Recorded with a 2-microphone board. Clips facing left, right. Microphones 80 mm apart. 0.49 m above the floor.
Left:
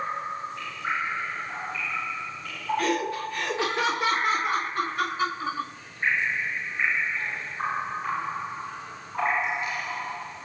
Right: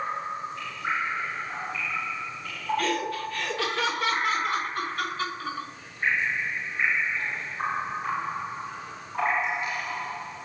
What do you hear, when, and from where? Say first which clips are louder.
2.8 s laughter: left 3 dB; 20° left (ahead or behind), 1.4 m